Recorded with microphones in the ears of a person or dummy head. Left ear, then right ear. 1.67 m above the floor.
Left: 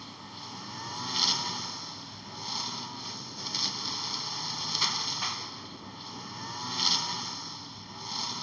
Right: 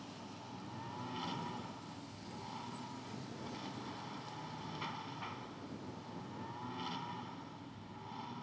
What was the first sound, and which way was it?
A lawn mower, 65° left (ahead or behind).